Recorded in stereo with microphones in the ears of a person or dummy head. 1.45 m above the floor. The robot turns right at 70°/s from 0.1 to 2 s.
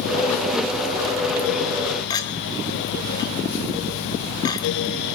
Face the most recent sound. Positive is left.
turn(degrees=25)  # may be behind; listen again after turning